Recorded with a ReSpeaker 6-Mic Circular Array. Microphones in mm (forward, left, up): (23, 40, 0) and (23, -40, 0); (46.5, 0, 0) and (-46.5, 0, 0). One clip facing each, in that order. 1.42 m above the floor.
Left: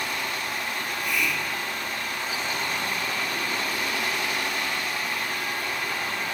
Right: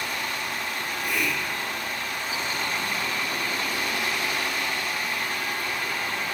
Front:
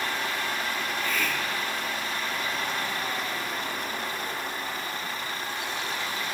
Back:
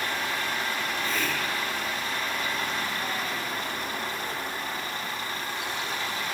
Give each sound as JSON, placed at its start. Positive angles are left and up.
{"t": 0.8, "sound": "a hiss", "azimuth_deg": -125, "distance_m": 2.5}